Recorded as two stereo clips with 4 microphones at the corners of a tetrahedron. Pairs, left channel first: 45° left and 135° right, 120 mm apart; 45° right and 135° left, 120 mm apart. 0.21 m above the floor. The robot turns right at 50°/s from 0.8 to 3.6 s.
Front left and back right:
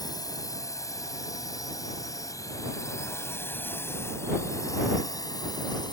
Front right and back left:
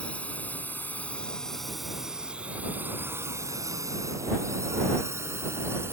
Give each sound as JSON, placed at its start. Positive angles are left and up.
{"t": 0.0, "sound": "a drone", "azimuth_deg": 25}